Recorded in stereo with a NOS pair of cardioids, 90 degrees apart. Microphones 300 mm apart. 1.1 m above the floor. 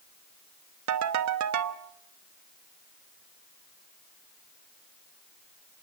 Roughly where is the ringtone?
Ahead right.